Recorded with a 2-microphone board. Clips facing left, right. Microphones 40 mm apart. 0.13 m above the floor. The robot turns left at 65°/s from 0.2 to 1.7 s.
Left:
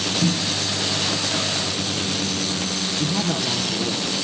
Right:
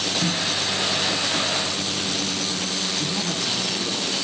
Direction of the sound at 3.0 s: 35° left (ahead or behind).